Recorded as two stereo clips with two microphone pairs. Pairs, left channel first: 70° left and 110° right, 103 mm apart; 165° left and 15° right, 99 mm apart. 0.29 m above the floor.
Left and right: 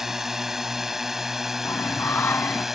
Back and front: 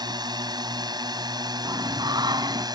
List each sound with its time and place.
0.0 s a drone: 25° right
1.6 s singing: 10° left